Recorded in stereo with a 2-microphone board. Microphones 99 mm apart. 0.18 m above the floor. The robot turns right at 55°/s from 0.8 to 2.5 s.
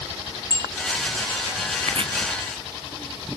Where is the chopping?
80° right; by 2.1 s 65° right (ahead or behind).